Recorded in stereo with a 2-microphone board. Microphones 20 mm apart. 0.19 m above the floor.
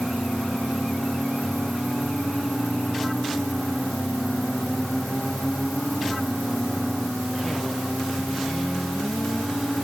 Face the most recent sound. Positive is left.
No sound to turn to.